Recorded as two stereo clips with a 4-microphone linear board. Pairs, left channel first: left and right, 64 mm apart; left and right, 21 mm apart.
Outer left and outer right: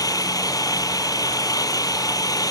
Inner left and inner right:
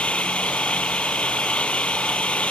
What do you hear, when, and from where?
0.0 s an engine running: 75° left (ahead or behind)